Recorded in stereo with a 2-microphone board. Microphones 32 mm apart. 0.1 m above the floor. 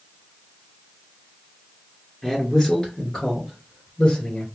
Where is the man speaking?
15° left (ahead or behind), 1.8 m; by 4.5 s 40° left (ahead or behind), 3 m.